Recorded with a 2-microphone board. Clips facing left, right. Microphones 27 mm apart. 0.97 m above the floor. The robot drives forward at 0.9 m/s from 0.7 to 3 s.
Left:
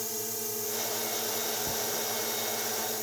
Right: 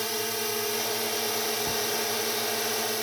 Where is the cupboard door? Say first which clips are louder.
Right 4 dB; 25° right (ahead or behind).